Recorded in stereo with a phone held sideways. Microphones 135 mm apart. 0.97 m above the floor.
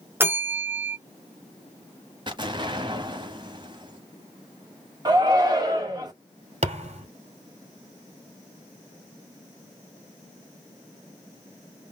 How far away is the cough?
I don't hear a cough.